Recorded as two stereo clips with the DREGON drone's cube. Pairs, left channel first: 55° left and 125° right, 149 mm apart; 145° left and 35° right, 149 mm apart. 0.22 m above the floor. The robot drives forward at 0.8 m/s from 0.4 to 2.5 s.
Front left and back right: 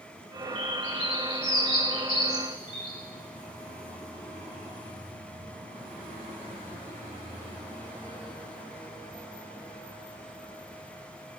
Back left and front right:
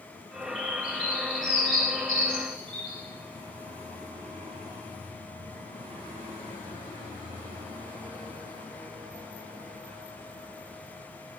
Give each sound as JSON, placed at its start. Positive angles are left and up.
{"t": 0.6, "sound": "a bird", "azimuth_deg": -175, "distance_m": 5.0}